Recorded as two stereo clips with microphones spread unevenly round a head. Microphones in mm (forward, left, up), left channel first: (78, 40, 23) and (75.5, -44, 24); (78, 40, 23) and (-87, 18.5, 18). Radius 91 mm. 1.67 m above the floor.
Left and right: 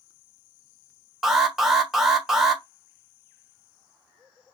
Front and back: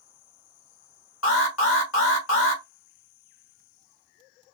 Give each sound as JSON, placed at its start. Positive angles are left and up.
{"t": 1.2, "sound": "an alarm", "azimuth_deg": -5, "distance_m": 1.7}